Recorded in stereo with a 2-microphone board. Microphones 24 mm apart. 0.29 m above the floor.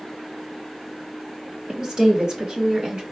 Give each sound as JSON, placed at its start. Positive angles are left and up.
{"t": 1.7, "sound": "a woman speaking", "side_deg": -25, "distance_m": 1.0}